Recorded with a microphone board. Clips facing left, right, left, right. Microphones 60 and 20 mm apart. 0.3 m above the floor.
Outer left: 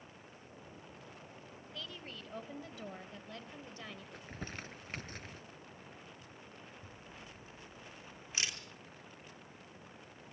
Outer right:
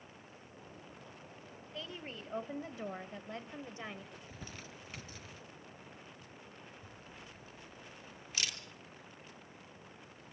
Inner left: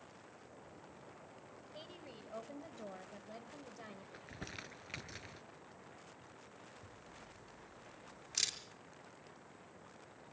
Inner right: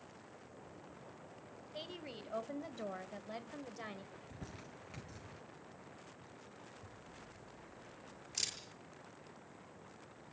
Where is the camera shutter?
25° left (ahead or behind), 3.5 m.